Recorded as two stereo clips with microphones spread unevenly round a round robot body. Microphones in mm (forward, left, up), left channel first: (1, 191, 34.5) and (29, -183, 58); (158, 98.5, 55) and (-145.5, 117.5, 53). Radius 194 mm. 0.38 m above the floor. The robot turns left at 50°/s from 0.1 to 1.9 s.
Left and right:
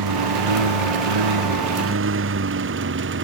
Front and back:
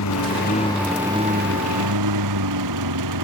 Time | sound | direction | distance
0.0 | a lawn mower | 50° right | ?